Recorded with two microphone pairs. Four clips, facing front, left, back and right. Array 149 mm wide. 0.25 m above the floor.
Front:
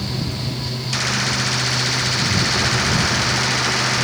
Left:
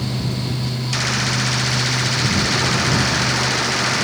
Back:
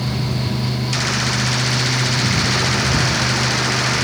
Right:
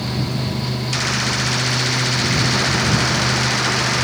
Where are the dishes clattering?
I don't hear dishes clattering.